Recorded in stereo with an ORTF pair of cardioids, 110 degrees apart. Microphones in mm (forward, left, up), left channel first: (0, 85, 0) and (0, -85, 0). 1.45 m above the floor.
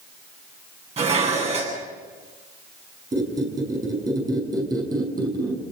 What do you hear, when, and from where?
1.0 s dishes clattering: 40° right, 10 m
3.1 s a squeak: 25° right, 5.5 m